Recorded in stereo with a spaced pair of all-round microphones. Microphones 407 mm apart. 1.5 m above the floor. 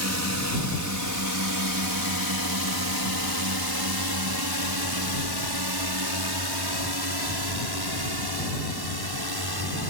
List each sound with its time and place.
0.0 s a drone: 40° right (ahead or behind); by 9.9 s 65° right (ahead or behind)